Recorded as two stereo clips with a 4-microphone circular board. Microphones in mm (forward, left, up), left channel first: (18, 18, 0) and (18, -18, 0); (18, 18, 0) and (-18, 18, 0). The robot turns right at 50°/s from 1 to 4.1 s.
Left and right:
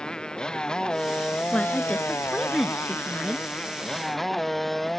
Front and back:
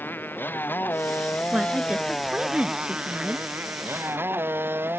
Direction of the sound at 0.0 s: 20° left.